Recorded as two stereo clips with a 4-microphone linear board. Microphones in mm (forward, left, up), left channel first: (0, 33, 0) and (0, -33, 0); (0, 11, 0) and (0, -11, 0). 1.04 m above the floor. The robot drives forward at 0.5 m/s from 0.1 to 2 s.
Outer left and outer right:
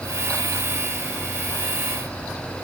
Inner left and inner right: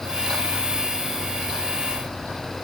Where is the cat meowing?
I don't hear a cat meowing.